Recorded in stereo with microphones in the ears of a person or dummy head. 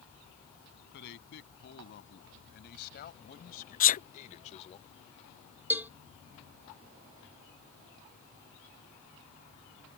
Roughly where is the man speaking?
Left.